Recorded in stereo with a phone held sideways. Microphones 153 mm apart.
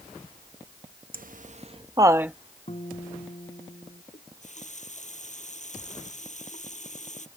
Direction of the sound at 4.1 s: 50° left (ahead or behind).